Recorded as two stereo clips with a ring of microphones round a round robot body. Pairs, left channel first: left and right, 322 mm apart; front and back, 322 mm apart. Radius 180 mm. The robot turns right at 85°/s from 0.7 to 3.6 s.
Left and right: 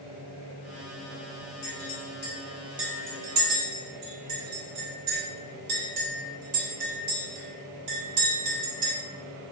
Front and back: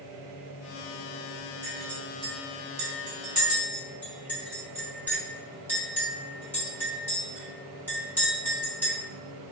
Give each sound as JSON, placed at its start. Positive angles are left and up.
{"t": 1.6, "sound": "a clink", "azimuth_deg": 95, "distance_m": 1.9}